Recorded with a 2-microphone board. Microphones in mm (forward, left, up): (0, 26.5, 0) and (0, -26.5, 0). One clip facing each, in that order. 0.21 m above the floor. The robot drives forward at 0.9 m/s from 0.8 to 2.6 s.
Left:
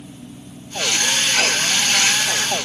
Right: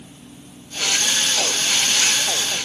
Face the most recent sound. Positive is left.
No sound to turn to.